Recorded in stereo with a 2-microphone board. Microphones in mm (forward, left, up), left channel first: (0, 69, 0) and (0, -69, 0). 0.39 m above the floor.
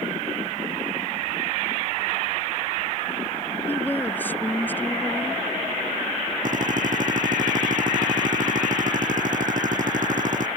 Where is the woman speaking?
15° left (ahead or behind).